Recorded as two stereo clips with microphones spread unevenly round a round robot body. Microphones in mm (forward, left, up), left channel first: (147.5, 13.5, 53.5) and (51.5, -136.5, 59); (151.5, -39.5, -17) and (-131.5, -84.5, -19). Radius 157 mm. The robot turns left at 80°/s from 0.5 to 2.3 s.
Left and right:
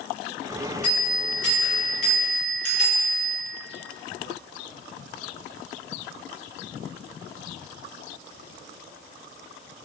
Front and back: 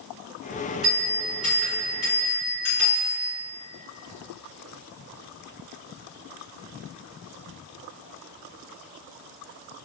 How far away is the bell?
About 1.6 m.